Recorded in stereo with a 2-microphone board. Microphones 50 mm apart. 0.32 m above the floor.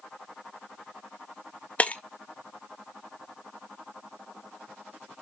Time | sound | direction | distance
1.8 | breaking glass | 25° left (ahead or behind) | 0.6 m